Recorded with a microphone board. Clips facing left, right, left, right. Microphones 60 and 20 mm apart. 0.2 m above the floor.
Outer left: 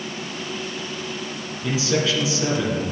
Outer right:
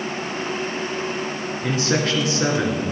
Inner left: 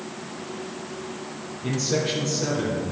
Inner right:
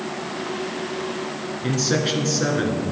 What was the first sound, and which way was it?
A man speaking, 50° right (ahead or behind).